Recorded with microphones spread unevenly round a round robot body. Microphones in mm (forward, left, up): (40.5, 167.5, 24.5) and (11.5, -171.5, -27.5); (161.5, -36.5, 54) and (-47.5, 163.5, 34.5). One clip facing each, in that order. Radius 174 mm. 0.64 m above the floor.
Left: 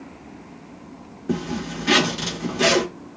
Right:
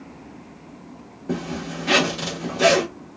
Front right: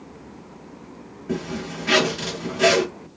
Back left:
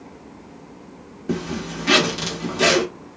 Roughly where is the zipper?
Behind.